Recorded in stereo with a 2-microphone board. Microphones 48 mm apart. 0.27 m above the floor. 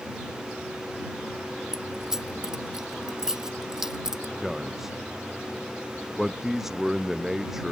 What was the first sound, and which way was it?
Keys jangling, 10° right (ahead or behind).